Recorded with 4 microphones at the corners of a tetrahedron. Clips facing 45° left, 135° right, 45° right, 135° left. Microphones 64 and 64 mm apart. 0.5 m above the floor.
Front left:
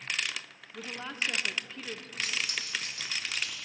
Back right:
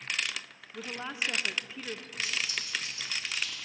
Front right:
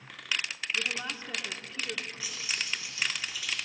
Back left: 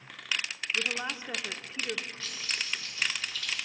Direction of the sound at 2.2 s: 30° left.